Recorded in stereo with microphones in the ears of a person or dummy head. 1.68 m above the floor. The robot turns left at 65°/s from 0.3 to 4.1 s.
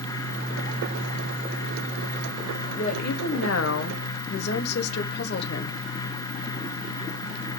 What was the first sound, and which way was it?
A woman speaking, 145° left.